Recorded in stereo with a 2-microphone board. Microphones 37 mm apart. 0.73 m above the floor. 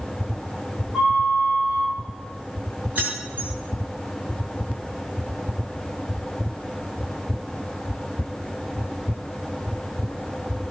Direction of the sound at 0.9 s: 5° left (ahead or behind).